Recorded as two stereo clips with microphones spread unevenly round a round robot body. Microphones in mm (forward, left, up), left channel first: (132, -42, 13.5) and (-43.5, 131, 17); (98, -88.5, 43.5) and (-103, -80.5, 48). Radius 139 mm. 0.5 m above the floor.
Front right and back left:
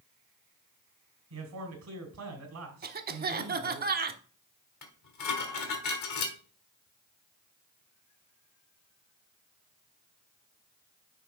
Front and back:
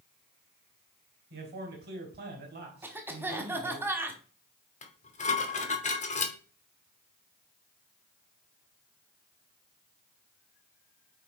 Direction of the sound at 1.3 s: 135° left.